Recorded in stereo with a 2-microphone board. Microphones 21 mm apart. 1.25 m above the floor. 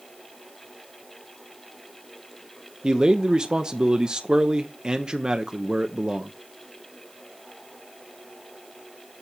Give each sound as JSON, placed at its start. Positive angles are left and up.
{"t": 2.8, "sound": "a man speaking", "side_deg": -45, "distance_m": 0.7}